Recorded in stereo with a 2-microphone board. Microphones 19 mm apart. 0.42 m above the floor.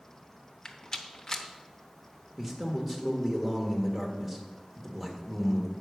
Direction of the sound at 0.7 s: 30° left (ahead or behind).